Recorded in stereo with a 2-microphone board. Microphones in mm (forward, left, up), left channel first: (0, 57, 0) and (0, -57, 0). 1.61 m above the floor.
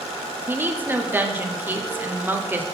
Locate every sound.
0.5 s a woman speaking: 15° right (ahead or behind), 0.8 m